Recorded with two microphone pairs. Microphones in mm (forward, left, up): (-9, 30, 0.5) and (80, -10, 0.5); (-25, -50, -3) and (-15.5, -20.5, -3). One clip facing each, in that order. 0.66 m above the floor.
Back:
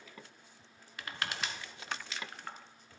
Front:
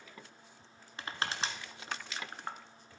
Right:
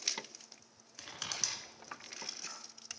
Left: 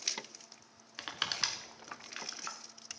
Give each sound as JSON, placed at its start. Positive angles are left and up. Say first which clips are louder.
{"t": 1.0, "sound": "crushing", "louder": "front 2 dB, left 6 dB", "azimuth_deg": 30, "distance_m": 1.1}